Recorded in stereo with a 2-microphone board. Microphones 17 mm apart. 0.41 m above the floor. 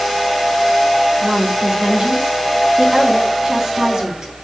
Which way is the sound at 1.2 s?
50° right (ahead or behind).